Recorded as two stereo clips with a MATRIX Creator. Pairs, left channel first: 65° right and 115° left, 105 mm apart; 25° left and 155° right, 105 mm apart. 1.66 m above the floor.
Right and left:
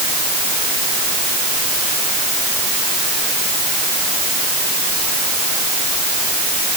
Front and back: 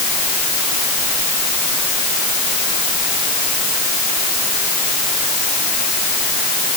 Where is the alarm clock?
I don't hear an alarm clock.